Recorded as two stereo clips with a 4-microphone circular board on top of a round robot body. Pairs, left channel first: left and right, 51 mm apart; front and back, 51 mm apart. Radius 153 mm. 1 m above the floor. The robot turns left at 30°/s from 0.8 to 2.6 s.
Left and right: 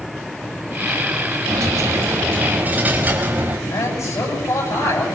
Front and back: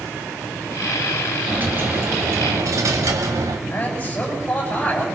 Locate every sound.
1.5 s a dropped coin: 115° right, 1.3 m; by 3.6 s 150° right, 1.3 m
3.7 s a man speaking: 65° left, 8 m